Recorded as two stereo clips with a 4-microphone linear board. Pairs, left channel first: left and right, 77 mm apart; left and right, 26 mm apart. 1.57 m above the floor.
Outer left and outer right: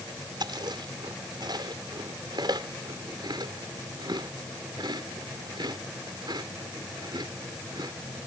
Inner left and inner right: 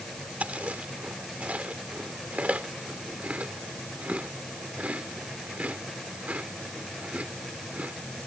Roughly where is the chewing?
Right.